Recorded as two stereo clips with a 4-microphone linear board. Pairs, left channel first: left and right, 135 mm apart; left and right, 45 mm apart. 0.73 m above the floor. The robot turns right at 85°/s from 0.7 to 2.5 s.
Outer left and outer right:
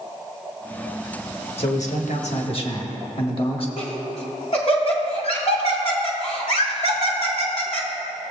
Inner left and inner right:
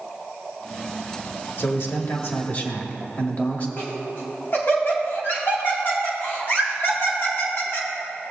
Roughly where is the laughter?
Left.